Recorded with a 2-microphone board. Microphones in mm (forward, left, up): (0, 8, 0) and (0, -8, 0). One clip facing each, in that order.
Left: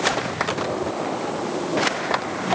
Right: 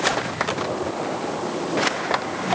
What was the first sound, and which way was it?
Only background noise.